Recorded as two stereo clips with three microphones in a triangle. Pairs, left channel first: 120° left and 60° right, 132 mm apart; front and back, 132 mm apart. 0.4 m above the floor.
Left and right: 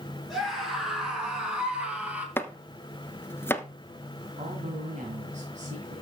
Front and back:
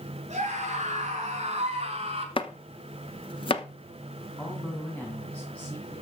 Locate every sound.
0.3 s a scream: 150° right, 6 m; by 2.3 s 140° right, 3 m
2.4 s chopping: 50° left, 0.9 m
4.4 s a man speaking: 80° right, 2.5 m